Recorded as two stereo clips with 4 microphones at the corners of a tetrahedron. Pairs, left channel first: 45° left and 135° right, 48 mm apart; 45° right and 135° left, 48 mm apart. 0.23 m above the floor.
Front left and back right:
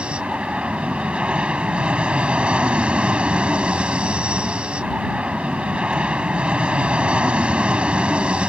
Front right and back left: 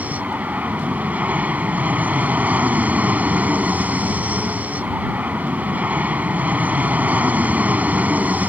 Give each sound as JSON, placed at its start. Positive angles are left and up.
{"t": 0.0, "sound": "an aircraft", "azimuth_deg": 170}